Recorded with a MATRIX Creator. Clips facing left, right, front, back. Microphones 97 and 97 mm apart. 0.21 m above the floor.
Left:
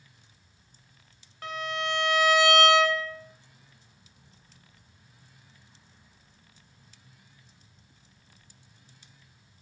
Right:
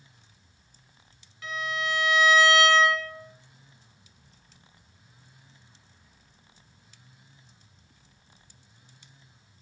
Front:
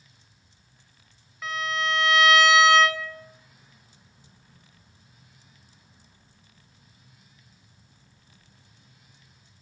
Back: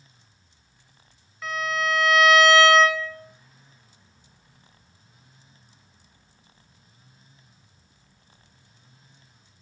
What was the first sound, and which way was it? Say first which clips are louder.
A violin: even, back 2 dB; 90° left.